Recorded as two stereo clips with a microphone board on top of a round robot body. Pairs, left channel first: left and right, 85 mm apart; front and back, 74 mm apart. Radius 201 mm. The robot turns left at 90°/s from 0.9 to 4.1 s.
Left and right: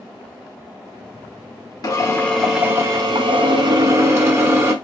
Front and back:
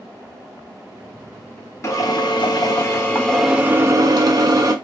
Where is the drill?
50° left, 1.6 m; by 4.7 s 150° right, 1.6 m.